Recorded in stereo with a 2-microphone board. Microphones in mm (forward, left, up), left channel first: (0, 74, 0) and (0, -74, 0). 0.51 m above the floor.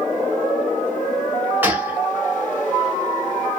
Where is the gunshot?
15° right (ahead or behind), 0.7 m.